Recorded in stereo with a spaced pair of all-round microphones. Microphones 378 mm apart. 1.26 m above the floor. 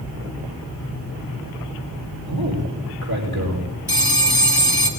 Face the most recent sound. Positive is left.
turn(degrees=65)  # may be behind; listen again after turning